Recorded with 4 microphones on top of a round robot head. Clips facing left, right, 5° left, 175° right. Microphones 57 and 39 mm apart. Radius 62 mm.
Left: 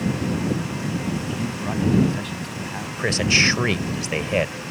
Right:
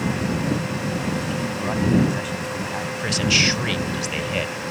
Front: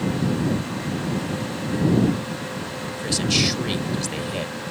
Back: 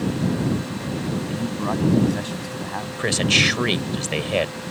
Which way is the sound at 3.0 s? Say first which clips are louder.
Left 2 dB, back 4 dB; 145° left.